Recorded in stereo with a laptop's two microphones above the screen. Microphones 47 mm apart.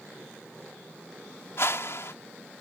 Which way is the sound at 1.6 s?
65° left (ahead or behind).